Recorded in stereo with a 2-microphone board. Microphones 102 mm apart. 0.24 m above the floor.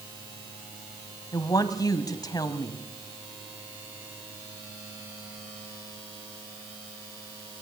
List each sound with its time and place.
1.3 s a woman speaking: 40° left (ahead or behind), 1.5 m